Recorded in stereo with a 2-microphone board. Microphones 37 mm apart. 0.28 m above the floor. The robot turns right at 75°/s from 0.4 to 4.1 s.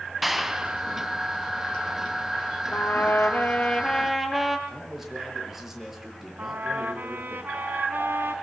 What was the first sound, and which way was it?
A clap, 175° right.